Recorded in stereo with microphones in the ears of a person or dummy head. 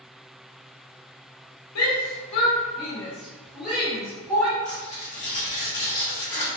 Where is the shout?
85° left, 0.5 m; by 4.5 s 10° right (ahead or behind), 1.3 m.